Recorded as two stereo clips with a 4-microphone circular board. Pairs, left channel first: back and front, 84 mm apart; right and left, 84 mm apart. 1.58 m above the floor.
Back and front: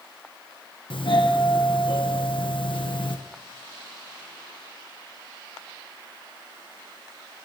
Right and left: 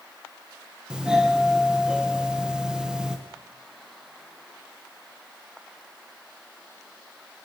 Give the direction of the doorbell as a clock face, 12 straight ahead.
6 o'clock.